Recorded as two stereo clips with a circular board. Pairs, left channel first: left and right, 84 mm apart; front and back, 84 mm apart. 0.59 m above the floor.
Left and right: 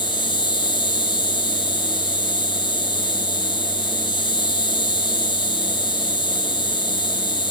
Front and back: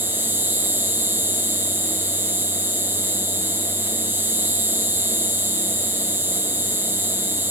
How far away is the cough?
I don't hear a cough.